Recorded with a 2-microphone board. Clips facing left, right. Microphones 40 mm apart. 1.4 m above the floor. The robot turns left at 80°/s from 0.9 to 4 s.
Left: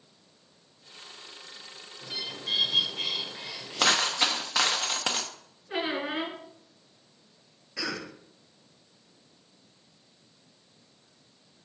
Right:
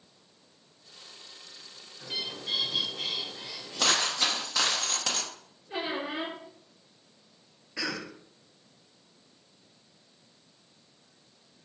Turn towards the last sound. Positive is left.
turn(degrees=-10)  # may be behind; listen again after turning